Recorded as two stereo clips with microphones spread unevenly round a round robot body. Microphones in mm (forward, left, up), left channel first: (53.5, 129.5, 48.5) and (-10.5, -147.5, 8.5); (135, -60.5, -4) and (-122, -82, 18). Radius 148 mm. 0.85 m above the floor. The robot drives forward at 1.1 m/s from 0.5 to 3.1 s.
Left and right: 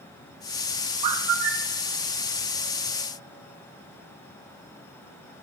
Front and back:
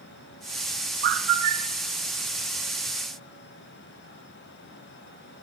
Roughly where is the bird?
Behind right.